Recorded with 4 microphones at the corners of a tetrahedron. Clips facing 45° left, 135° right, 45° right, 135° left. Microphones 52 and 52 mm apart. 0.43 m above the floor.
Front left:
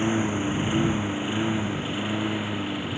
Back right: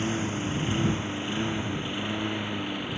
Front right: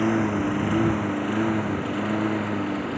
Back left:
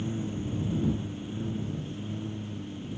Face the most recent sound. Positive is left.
turn(degrees=-40)